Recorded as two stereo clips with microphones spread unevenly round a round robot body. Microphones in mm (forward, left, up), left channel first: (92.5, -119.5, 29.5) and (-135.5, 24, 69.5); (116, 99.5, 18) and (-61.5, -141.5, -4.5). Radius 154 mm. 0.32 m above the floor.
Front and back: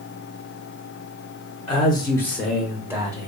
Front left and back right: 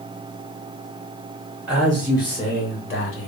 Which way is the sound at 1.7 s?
55° right.